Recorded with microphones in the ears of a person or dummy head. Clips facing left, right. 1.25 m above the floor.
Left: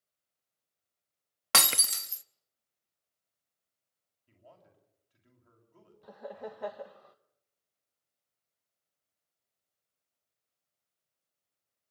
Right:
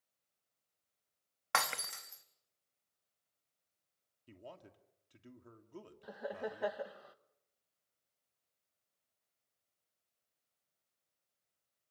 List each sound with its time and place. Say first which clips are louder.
1.5 s breaking glass: left 4 dB; 45° left (ahead or behind), 0.8 m
4.3 s a man speaking: right 6 dB; 65° right (ahead or behind), 3 m
6.0 s laughter: right 1 dB; 5° right (ahead or behind), 1.3 m